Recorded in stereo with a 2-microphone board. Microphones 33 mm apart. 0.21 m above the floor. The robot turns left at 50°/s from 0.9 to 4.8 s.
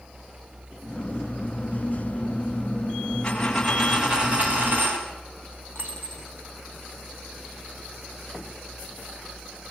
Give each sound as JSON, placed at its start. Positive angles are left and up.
{"t": 3.2, "sound": "a dropped coin", "azimuth_deg": 20, "distance_m": 5.5}
{"t": 5.8, "sound": "a dropped coin", "side_deg": -80, "distance_m": 5.0}